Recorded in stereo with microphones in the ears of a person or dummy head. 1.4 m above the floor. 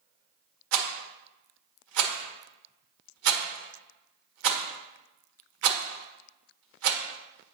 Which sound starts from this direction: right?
A rattle, at 0.7 s.